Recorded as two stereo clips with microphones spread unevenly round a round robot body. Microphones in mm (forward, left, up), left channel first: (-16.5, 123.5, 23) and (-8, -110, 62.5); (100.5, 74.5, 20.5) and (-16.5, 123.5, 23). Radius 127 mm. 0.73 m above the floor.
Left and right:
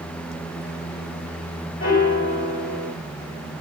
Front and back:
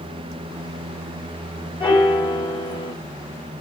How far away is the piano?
About 2.5 m.